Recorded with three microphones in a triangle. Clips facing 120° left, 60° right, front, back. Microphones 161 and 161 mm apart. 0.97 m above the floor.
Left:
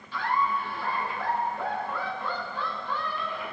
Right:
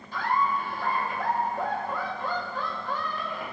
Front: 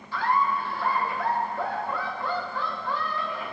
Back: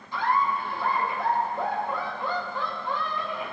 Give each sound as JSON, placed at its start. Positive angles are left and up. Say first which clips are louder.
{"t": 0.1, "sound": "laughter", "louder": "right 1 dB, even", "azimuth_deg": -105, "distance_m": 1.1}